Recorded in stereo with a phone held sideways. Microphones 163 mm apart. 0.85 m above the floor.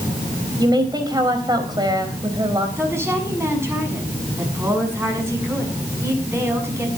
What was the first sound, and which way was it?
A woman speaking, 25° right (ahead or behind).